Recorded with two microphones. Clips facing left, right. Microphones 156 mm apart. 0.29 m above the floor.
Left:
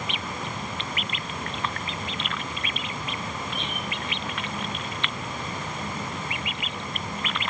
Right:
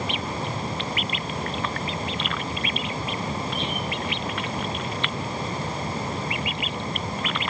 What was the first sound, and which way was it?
Only background noise.